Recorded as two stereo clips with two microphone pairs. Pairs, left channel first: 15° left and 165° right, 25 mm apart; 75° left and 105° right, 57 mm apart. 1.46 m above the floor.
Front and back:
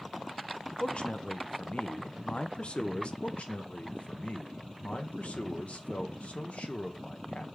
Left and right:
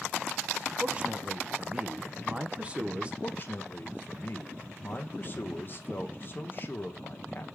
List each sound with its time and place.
0.8 s a man speaking: 35° right, 0.5 m
3.2 s a man speaking: 25° left, 0.6 m